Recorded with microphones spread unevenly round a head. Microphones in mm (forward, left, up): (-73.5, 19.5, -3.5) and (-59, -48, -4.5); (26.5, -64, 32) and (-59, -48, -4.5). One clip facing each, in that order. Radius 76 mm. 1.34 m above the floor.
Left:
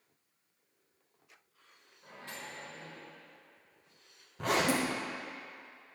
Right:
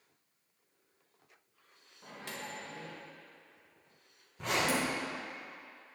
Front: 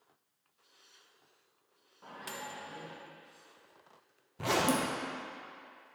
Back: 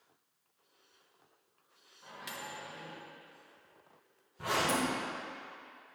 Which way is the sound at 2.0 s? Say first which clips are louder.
Right 2 dB, front 1 dB; 55° right.